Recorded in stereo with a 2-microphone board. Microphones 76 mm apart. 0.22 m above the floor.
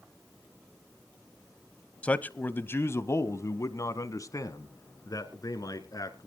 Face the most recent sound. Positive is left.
turn(degrees=55)  # may be behind; listen again after turning